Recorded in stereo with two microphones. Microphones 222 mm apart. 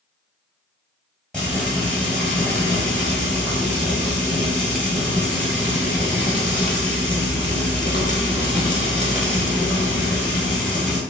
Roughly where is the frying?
Centre.